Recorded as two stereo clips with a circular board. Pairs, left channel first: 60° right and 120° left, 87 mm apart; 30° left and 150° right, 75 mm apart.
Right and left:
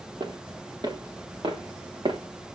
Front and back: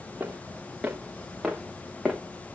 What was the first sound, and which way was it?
Footsteps, 140° left.